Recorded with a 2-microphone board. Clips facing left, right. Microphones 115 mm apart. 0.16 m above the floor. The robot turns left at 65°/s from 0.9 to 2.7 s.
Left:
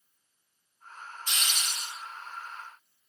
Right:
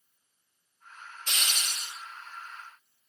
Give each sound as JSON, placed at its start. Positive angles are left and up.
{"t": 1.3, "sound": "a hiss", "azimuth_deg": -80, "distance_m": 1.5}